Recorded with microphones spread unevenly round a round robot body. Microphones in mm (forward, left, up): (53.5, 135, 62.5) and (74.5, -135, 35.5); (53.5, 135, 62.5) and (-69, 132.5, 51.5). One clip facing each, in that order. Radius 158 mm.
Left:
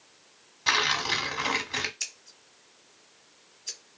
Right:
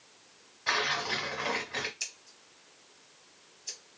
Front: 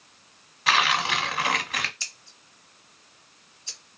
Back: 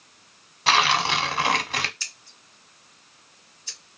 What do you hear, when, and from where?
0.7 s tearing paper: 130° left, 0.9 m
2.0 s scissors: 45° left, 1.5 m